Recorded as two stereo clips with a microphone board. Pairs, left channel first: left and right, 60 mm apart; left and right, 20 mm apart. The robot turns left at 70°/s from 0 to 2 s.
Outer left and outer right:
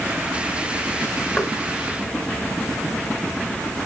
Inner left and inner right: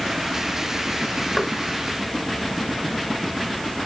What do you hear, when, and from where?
1.4 s knocking: 20° left (ahead or behind), 2.5 m; by 1.5 s 10° left (ahead or behind), 2.5 m